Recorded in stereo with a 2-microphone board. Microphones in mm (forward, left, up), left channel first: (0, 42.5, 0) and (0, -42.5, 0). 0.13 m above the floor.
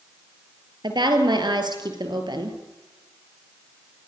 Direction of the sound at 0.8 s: 60° right (ahead or behind).